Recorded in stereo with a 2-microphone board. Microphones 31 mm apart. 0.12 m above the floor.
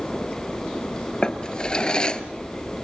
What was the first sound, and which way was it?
A drawer, 25° left (ahead or behind).